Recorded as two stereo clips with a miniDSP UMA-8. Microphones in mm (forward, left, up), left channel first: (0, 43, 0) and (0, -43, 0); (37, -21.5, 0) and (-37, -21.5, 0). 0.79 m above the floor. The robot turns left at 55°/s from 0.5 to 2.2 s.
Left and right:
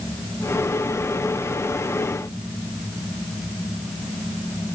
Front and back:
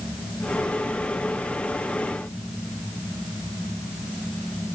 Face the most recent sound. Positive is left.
No sound to turn to.